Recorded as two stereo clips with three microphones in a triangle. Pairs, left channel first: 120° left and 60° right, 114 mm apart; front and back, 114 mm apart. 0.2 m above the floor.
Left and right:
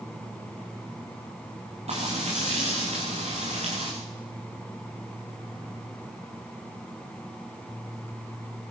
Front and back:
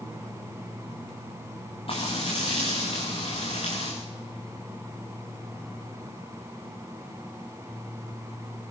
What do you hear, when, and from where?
1.9 s frying: 40° right, 8.5 m